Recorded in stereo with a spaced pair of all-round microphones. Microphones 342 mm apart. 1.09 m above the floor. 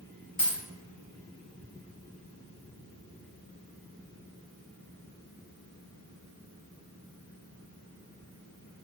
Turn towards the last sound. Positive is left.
turn(degrees=25)  # may be behind; listen again after turning